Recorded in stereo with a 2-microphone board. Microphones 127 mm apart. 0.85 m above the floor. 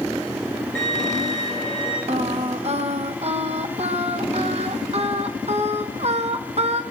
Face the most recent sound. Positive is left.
turn(degrees=-55)  # may be behind; listen again after turning